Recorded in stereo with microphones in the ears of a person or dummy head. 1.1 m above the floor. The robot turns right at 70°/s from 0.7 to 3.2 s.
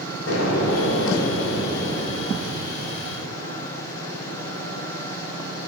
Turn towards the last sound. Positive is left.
turn(degrees=-115)